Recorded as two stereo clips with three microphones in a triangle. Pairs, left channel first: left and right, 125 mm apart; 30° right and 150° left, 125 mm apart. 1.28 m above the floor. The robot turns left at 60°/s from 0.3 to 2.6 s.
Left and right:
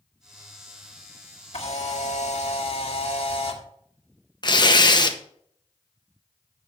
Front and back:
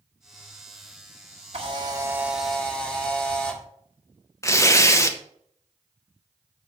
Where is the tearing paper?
35° left, 0.8 m.